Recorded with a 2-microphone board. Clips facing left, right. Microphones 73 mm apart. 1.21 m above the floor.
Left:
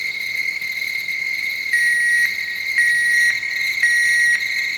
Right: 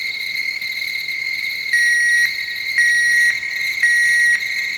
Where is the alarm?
10° right (ahead or behind), 0.7 m.